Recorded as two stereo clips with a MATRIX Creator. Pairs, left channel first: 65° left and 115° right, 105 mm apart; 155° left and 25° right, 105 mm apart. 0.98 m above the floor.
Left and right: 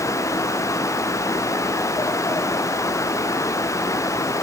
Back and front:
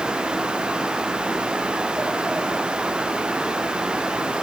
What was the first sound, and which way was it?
Only background noise.